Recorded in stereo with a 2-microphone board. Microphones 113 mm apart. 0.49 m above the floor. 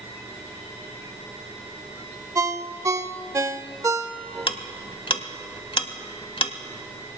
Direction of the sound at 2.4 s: 25° right (ahead or behind).